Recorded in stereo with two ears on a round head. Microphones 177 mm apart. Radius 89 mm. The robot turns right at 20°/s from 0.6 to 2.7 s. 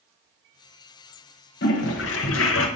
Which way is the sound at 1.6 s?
55° left (ahead or behind).